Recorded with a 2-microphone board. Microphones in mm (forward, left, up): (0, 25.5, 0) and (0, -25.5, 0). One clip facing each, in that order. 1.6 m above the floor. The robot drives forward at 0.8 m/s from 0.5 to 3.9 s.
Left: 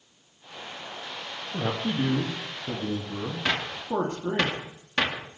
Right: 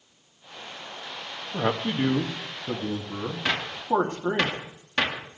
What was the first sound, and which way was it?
A man speaking, 75° right (ahead or behind).